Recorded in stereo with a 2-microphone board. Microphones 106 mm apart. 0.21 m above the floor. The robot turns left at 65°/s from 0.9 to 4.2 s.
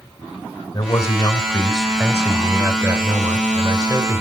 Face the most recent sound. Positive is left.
turn(degrees=-145)